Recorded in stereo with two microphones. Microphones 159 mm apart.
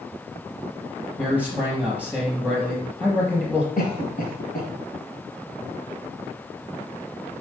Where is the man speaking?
10° left (ahead or behind), 4 m.